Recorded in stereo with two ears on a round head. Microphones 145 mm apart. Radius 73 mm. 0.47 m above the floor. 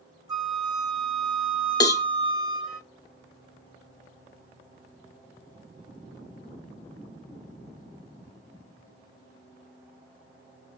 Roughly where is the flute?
Right.